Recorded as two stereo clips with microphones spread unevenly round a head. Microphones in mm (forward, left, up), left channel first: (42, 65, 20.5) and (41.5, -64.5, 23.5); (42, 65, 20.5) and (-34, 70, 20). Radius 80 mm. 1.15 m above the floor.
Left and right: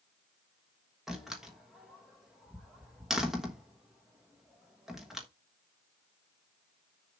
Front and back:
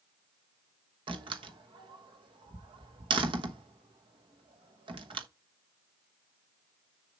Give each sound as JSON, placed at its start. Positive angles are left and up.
{"t": 1.1, "sound": "a door slam", "azimuth_deg": 180, "distance_m": 1.2}